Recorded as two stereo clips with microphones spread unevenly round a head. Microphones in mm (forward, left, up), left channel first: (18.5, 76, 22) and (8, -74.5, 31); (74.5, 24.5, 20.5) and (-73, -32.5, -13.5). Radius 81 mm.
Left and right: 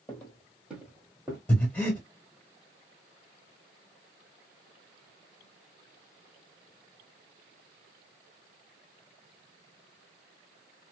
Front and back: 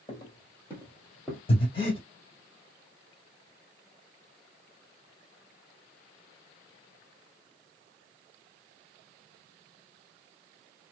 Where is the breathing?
10° left, 1.5 m.